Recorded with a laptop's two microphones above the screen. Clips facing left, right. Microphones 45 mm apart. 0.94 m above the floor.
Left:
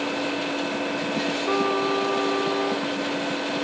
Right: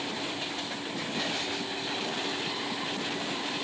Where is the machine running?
70° left (ahead or behind).